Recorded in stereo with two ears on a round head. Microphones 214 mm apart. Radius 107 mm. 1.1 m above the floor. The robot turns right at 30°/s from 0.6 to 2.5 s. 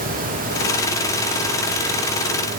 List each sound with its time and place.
Only background noise.